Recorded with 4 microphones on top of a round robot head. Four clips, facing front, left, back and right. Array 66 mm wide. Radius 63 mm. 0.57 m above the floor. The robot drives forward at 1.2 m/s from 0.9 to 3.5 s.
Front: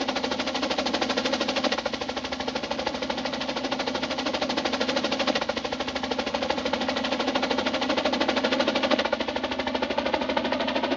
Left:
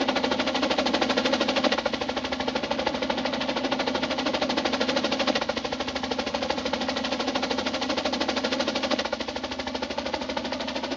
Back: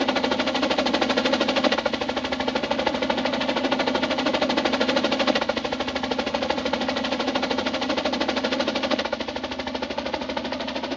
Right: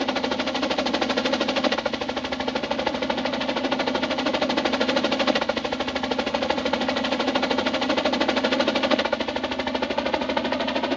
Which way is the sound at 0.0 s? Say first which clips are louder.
Even, back 5 dB; 175° left.